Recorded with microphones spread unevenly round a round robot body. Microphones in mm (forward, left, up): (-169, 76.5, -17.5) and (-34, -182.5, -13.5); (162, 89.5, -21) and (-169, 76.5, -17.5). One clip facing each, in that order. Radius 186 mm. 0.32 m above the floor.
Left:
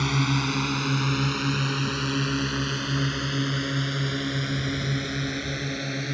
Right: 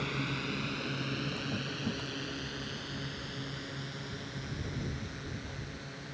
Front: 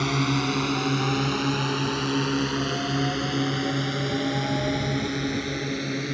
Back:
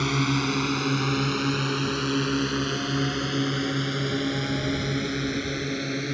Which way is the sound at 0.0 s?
90° left.